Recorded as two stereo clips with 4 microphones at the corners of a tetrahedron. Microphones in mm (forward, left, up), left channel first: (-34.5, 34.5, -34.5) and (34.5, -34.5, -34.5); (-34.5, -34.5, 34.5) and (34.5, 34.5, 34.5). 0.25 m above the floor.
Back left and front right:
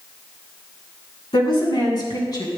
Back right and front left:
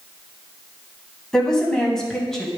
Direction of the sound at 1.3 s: 145° left.